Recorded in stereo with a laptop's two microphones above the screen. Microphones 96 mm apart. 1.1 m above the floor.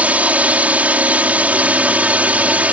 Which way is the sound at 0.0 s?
15° right (ahead or behind).